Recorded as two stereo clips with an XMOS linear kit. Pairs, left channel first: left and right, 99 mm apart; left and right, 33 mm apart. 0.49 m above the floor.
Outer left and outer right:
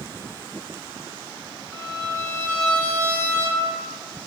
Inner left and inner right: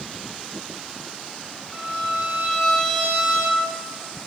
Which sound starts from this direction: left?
A violin, at 1.7 s.